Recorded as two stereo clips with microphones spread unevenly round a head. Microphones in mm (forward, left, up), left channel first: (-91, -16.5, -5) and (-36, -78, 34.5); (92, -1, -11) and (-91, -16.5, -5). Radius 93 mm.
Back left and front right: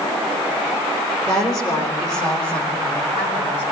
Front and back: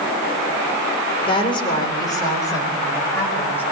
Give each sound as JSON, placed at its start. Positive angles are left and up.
{"t": 1.3, "sound": "a woman speaking", "azimuth_deg": 70, "distance_m": 4.0}